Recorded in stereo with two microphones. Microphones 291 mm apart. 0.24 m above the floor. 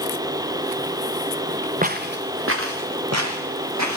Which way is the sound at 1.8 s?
30° right (ahead or behind).